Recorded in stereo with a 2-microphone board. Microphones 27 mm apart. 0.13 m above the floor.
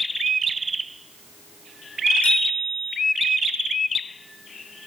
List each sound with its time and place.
2.2 s a bicycle bell: 60° left (ahead or behind), 5.5 m